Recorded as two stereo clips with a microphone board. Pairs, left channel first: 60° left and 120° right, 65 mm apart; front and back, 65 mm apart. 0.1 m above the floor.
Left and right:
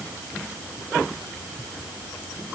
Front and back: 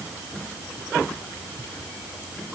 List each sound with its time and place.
Only background noise.